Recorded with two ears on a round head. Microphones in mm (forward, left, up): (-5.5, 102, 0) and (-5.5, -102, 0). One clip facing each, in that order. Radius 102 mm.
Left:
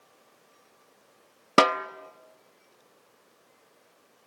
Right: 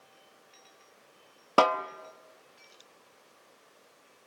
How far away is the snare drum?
About 0.8 m.